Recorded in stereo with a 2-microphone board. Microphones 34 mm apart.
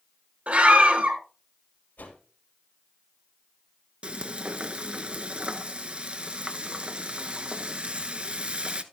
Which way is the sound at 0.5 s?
45° right (ahead or behind).